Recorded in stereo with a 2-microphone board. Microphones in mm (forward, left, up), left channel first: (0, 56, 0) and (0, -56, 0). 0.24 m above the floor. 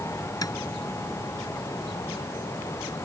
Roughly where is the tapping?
Left.